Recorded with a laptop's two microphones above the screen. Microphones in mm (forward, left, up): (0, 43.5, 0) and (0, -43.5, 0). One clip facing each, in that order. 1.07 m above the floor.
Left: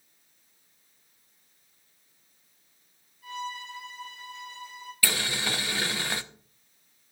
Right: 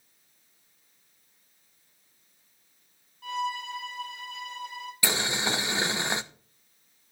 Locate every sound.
3.2 s a violin: 75° right (ahead or behind), 3.5 m
5.0 s boiling: 20° right (ahead or behind), 0.6 m